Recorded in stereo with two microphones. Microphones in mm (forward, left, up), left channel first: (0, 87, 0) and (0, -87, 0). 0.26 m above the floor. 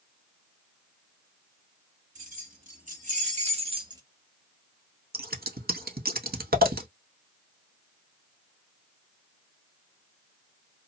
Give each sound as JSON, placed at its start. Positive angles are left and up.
{"t": 2.1, "sound": "keys jangling", "side_deg": -50, "distance_m": 1.5}
{"t": 5.1, "sound": "scissors", "side_deg": -60, "distance_m": 0.7}